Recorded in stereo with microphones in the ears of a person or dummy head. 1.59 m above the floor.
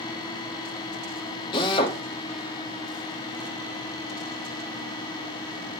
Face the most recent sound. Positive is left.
turn(degrees=25)  # may be behind; listen again after turning